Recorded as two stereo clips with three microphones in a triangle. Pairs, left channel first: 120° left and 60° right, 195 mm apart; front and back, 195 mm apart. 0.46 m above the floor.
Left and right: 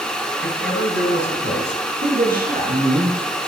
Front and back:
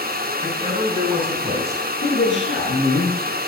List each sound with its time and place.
0.4 s a man speaking: 110° left, 4.5 m; by 1.9 s 130° left, 4 m
2.0 s a man speaking: 20° right, 6 m